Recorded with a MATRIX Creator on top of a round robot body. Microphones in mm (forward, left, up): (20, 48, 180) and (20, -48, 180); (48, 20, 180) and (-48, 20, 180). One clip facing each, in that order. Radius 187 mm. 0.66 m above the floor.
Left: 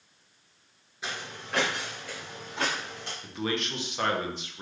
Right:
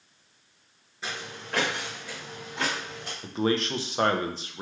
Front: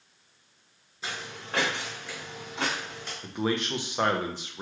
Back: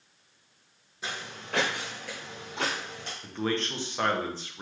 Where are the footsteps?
175° left, 0.6 m; by 3.1 s 175° right, 1.6 m.